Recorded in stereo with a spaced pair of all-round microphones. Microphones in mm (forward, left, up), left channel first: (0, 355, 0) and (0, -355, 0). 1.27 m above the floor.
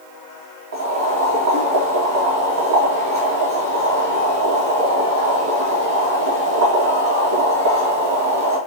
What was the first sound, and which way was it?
Boiling, 25° right (ahead or behind).